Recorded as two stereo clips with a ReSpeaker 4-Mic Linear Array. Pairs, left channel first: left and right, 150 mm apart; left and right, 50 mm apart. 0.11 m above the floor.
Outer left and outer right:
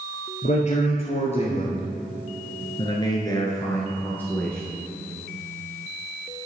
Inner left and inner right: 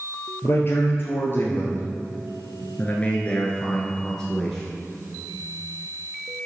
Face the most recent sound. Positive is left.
turn(degrees=5)  # may be behind; listen again after turning